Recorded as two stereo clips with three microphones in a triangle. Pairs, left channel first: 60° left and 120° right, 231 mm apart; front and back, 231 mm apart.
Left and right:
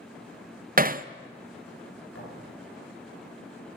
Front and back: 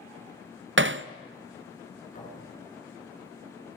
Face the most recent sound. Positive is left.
turn(degrees=55)